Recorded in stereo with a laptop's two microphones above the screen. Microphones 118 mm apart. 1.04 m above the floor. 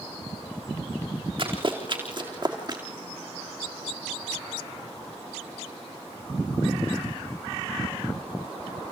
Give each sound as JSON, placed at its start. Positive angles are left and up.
{"t": 1.4, "sound": "running footsteps", "side_deg": -50, "distance_m": 4.0}